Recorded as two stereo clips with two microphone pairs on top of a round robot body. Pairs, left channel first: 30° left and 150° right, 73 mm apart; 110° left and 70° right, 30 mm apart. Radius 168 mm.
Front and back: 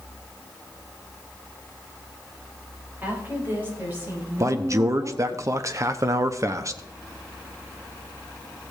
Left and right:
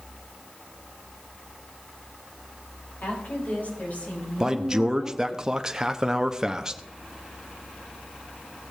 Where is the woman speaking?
145° left, 4 m; by 5.4 s 150° left, 7 m.